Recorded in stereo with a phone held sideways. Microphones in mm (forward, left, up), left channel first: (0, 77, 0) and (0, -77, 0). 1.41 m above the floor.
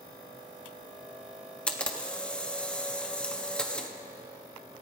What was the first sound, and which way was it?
A camera shutter, 5° left (ahead or behind).